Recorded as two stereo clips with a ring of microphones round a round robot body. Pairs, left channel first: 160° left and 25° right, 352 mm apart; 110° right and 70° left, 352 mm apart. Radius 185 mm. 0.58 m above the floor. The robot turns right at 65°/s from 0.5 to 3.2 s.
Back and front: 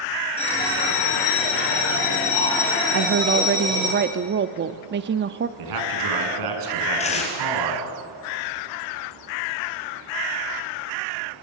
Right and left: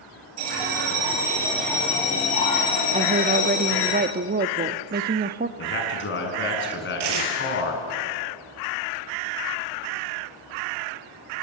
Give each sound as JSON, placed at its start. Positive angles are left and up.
{"t": 0.4, "sound": "a bell", "azimuth_deg": 85, "distance_m": 8.0}
{"t": 2.9, "sound": "a woman speaking", "azimuth_deg": 0, "distance_m": 0.8}
{"t": 5.6, "sound": "a man speaking", "azimuth_deg": -55, "distance_m": 6.0}
{"t": 7.0, "sound": "tearing paper", "azimuth_deg": 85, "distance_m": 4.5}